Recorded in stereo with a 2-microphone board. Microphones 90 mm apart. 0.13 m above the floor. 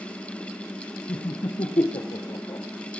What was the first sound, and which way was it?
Laughter, 65° left (ahead or behind).